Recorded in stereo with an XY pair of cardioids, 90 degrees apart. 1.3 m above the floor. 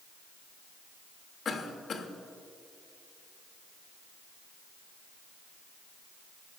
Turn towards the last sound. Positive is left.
turn(degrees=55)